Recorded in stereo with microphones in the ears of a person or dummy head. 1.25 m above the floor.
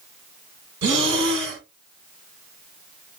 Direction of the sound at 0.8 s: 65° right (ahead or behind).